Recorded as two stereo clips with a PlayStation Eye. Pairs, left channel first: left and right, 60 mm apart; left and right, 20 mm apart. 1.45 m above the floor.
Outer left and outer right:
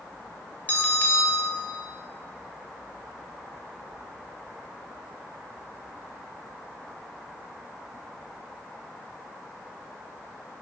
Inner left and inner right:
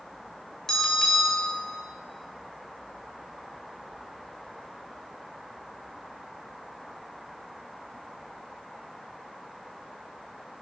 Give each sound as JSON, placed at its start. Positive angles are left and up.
{"t": 0.7, "sound": "a bell", "side_deg": 30, "distance_m": 3.0}